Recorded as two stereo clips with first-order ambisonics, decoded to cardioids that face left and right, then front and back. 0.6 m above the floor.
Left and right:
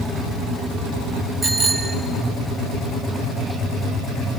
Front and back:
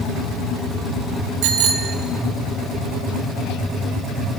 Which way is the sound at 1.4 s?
170° right.